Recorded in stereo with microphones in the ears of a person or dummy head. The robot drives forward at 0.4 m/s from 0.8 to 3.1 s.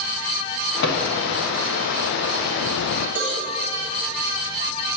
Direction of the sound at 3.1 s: 70° left (ahead or behind).